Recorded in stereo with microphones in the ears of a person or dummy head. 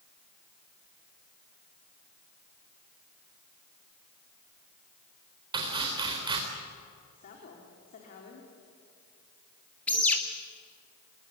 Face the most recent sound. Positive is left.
turn(degrees=10)  # may be behind; listen again after turning